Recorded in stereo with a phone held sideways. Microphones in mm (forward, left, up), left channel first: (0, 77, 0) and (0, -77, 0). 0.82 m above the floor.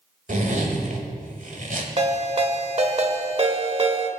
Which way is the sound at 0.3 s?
60° right (ahead or behind).